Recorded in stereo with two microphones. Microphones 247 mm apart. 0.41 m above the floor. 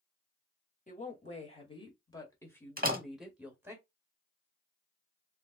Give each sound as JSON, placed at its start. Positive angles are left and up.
{"t": 0.9, "sound": "a woman speaking", "side_deg": 30, "distance_m": 2.0}
{"t": 2.8, "sound": "a door slam", "side_deg": -35, "distance_m": 1.0}